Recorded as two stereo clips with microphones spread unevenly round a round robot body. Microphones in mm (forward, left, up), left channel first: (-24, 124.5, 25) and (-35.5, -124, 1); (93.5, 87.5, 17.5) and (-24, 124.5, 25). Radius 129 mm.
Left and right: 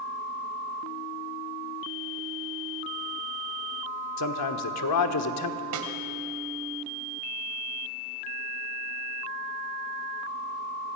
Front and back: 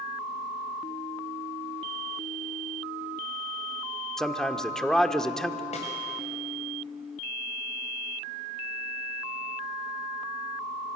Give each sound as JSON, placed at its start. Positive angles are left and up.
{"t": 4.2, "sound": "a man speaking", "azimuth_deg": 65, "distance_m": 1.4}
{"t": 5.7, "sound": "a snare drum", "azimuth_deg": -70, "distance_m": 2.5}